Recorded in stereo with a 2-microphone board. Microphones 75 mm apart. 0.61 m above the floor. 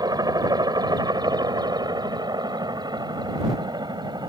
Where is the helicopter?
60° right (ahead or behind); by 4.3 s 70° right (ahead or behind).